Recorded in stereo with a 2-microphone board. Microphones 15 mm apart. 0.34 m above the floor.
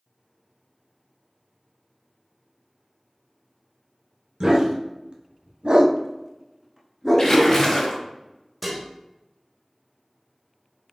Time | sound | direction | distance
4.4 | a dog barking | 45° right (ahead or behind) | 1.1 m
7.2 | a splash | 25° left (ahead or behind) | 1.1 m
8.6 | dishes clattering | 5° right (ahead or behind) | 0.6 m